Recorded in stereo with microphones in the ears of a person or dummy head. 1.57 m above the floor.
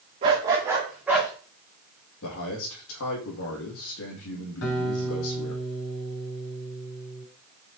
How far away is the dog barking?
About 1.0 m.